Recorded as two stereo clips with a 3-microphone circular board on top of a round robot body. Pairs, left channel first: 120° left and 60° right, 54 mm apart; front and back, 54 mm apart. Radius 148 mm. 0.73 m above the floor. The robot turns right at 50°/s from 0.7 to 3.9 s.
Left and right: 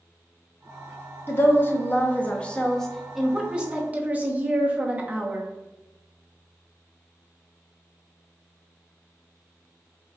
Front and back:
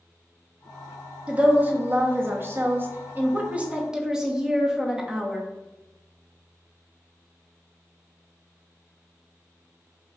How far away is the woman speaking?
About 1.0 m.